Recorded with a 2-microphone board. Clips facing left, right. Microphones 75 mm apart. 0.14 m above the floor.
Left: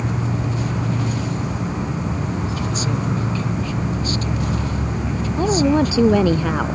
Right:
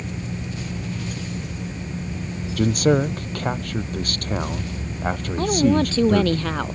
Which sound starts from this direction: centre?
A woman speaking, at 5.4 s.